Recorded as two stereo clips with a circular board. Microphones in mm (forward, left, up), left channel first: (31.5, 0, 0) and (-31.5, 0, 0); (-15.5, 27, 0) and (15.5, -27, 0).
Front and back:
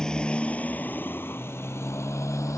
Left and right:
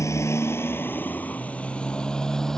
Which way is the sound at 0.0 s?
80° left.